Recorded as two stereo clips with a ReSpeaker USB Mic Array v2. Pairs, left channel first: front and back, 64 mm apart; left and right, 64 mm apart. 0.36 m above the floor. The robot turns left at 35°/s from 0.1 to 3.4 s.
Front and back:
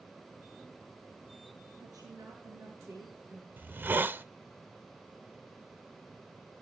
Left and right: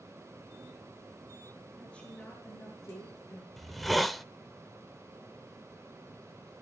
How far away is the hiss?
About 0.6 m.